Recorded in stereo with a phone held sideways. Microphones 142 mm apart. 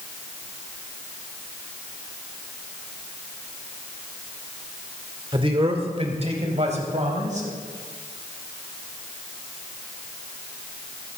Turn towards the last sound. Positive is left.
turn(degrees=-55)  # may be behind; listen again after turning